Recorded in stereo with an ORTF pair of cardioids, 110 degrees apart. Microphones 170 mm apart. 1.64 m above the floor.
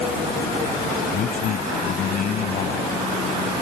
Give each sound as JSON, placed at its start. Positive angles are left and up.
{"t": 1.1, "sound": "a man speaking", "azimuth_deg": 55}